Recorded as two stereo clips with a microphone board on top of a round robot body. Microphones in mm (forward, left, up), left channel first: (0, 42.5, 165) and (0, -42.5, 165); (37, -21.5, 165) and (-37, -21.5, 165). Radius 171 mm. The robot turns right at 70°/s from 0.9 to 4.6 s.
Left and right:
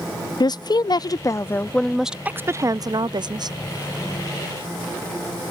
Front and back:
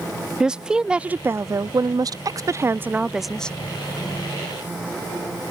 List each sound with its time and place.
0.4 s a woman speaking: 105° left; by 3.5 s 70° right